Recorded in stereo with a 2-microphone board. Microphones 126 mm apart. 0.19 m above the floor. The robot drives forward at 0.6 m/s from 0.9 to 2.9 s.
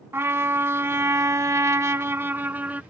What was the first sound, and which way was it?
A trumpet, 20° right (ahead or behind).